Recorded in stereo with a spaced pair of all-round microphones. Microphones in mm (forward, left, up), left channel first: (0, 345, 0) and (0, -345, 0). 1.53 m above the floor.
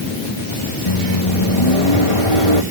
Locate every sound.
0.9 s a microwave: 45° left (ahead or behind)